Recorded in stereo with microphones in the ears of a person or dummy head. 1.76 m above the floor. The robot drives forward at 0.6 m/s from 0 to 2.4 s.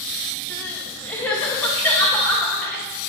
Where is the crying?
10° left (ahead or behind), 3 m; by 2.8 s 5° left (ahead or behind), 4 m.